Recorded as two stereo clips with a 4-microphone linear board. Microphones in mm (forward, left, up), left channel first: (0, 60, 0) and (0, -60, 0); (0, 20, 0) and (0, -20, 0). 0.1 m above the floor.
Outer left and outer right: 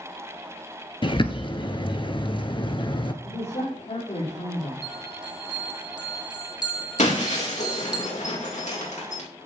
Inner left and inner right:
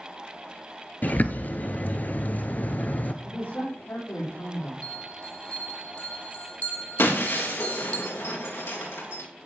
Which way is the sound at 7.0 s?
80° left.